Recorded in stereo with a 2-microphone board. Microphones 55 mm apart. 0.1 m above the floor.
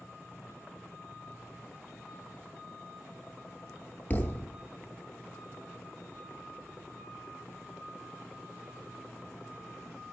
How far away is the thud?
About 0.5 m.